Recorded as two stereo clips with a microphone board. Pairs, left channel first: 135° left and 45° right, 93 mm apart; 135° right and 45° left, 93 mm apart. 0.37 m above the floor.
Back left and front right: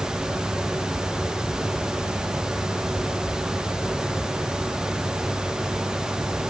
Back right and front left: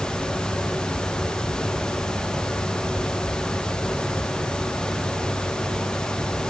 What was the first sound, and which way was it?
Only background noise.